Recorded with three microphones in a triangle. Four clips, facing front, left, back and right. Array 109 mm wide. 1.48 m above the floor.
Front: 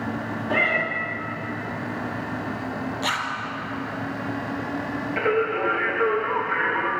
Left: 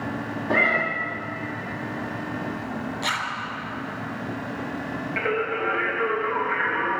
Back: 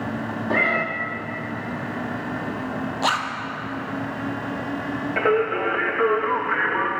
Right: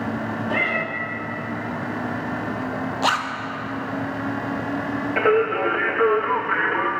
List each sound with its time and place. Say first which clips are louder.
0.5 s a cat meowing: left 4 dB, back 1 dB; 125° left, 0.9 m
3.0 s a zipper: right 8 dB, back 5 dB; 120° right, 0.8 m
5.2 s singing: right 7 dB, back 2 dB; 125° right, 1.1 m